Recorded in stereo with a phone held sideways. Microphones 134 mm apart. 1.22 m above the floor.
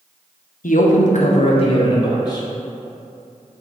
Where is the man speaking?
80° left, 0.6 m; by 2.5 s 30° left (ahead or behind), 1.2 m.